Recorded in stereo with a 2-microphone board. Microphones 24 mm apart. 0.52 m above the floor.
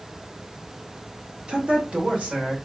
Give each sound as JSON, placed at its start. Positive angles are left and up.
{"t": 1.5, "sound": "a woman speaking", "side_deg": -40, "distance_m": 1.3}